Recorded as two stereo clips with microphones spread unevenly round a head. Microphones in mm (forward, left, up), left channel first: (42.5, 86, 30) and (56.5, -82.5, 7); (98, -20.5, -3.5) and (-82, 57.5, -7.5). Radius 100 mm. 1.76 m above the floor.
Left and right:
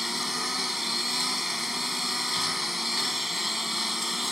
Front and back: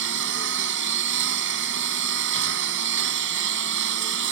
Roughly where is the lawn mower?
Behind.